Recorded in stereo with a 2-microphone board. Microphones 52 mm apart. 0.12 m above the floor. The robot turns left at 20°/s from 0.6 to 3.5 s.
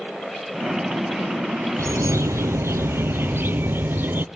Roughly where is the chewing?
I don't hear chewing.